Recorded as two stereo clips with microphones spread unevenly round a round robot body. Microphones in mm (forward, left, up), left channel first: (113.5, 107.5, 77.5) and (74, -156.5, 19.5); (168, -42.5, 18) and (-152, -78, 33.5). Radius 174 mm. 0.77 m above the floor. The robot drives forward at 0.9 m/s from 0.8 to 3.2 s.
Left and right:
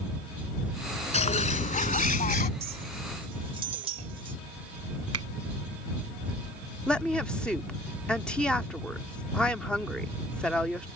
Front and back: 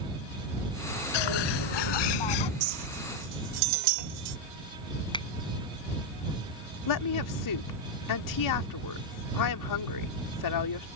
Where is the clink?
170° right; by 4.4 s 175° right.